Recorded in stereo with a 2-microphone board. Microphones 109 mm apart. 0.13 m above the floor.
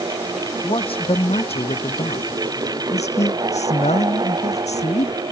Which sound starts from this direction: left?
A man speaking, at 0.6 s.